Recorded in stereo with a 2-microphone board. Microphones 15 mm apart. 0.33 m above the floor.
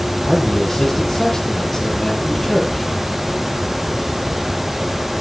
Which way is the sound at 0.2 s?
25° left (ahead or behind).